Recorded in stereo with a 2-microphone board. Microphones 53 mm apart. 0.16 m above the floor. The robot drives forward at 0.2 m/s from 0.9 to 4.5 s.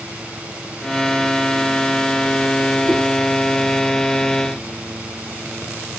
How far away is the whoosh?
About 1.7 m.